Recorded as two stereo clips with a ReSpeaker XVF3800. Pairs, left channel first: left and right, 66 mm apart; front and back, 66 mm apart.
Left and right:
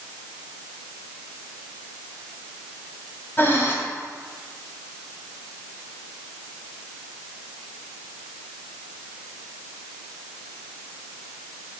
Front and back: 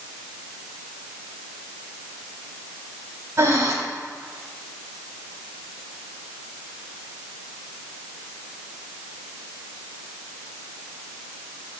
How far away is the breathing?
About 1.9 m.